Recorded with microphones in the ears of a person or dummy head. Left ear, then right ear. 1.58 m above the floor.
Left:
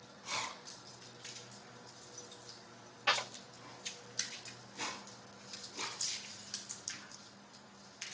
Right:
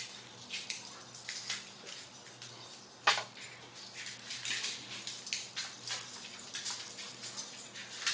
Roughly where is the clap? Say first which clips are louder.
Right 2 dB; right.